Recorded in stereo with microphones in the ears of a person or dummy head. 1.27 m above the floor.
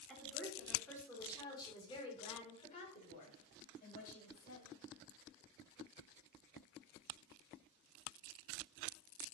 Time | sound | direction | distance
0.1 | a woman speaking | 5° left (ahead or behind) | 3.5 m